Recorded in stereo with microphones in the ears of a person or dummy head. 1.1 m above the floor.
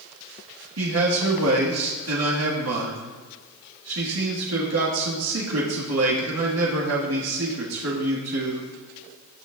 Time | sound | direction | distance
0.8 | a man speaking | 80° right | 1.8 m